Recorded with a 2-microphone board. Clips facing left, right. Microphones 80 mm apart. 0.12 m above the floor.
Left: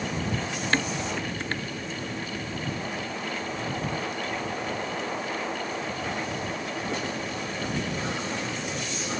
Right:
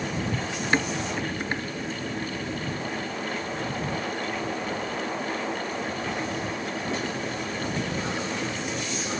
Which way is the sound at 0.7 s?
15° right (ahead or behind).